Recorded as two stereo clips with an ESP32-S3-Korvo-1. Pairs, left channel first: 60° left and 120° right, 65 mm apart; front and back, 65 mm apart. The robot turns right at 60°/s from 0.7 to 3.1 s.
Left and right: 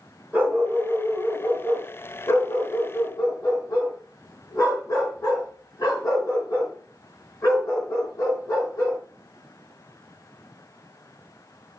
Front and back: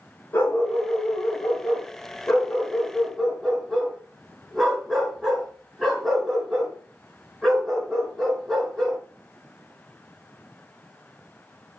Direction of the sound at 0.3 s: 55° right.